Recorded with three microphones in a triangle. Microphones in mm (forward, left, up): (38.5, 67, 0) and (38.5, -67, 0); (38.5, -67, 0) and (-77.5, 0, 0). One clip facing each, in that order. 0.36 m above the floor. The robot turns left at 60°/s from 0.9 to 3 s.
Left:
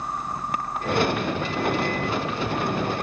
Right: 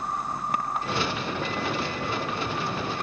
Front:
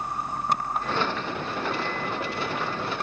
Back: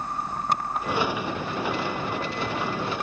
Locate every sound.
Only background noise.